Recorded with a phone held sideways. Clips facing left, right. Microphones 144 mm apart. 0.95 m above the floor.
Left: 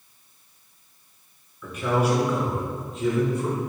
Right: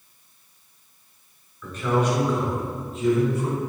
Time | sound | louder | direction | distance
1.6 | a man speaking | even | 15° left (ahead or behind) | 2.5 m